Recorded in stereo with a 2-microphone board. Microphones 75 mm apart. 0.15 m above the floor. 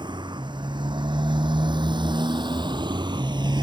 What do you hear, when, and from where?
0.0 s a motorcycle: 70° right (ahead or behind)